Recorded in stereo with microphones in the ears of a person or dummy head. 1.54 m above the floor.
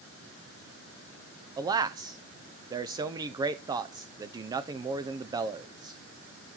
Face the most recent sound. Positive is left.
turn(degrees=-20)  # may be behind; listen again after turning